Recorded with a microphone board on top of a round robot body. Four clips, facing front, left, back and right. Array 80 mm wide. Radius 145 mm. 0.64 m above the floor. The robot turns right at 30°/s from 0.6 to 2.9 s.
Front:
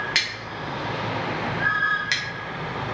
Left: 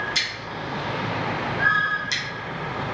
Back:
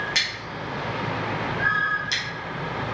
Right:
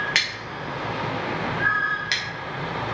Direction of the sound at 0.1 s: 75° right.